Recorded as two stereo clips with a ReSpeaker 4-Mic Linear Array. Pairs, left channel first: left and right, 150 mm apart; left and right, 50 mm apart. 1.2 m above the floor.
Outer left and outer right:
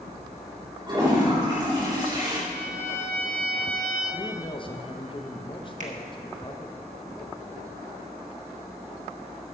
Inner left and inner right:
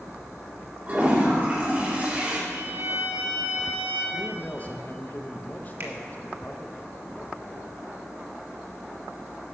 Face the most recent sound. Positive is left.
turn(degrees=-55)  # may be behind; listen again after turning